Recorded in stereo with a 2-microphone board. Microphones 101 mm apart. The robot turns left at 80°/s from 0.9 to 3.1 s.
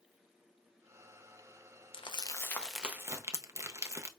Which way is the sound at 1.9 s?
60° left (ahead or behind).